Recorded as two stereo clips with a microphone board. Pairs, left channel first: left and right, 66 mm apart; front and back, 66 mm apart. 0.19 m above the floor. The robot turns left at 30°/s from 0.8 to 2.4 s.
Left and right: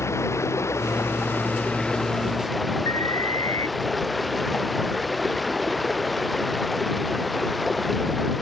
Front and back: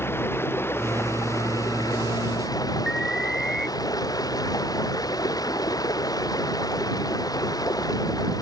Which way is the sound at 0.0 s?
50° left.